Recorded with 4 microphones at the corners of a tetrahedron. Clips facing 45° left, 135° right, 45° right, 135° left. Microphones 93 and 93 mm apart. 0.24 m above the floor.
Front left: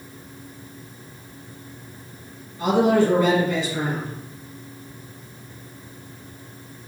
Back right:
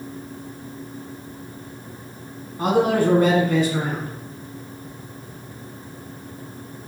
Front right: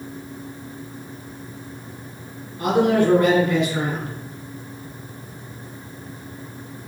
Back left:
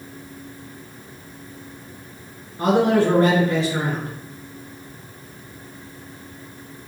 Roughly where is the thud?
No thud in this recording.